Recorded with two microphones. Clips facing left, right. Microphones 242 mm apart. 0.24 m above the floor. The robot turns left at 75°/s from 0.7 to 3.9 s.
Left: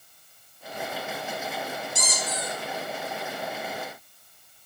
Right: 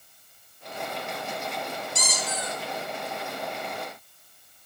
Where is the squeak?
75° right, 0.8 m; by 2.5 s 120° right, 0.8 m.